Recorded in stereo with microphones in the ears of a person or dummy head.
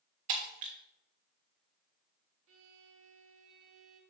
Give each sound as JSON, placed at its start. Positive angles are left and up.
{"t": 0.3, "sound": "breaking glass", "side_deg": -45, "distance_m": 1.3}
{"t": 2.5, "sound": "a violin", "side_deg": -75, "distance_m": 1.3}